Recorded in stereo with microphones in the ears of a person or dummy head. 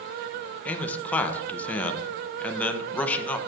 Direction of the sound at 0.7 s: 10° left (ahead or behind).